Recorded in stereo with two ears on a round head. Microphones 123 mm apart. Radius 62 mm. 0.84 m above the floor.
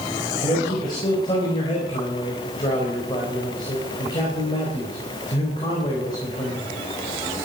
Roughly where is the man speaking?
Left.